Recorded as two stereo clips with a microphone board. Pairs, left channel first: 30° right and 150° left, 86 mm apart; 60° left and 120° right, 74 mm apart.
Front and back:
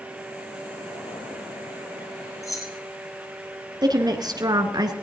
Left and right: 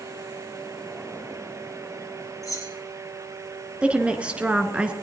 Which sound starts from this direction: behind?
A woman speaking, at 3.8 s.